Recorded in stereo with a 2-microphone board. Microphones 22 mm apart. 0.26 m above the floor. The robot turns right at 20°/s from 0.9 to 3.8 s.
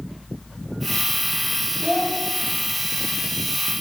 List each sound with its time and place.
1.8 s a child speaking: 25° left (ahead or behind), 0.8 m; by 2.2 s 20° left (ahead or behind), 0.8 m